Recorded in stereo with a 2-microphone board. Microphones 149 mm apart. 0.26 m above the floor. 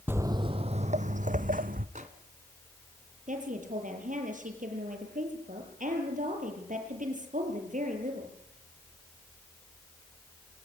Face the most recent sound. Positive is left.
turn(degrees=-60)  # may be behind; listen again after turning